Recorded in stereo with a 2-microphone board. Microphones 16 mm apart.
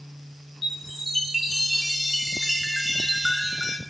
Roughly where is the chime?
Centre.